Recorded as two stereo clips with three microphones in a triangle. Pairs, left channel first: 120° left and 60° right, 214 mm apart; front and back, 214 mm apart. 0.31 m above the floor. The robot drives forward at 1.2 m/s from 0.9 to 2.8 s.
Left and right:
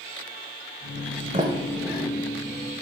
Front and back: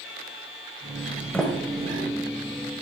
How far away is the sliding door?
About 1.0 m.